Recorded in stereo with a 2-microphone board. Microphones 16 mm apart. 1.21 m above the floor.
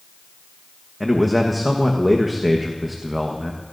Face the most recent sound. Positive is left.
turn(degrees=0)  # may be behind; listen again after turning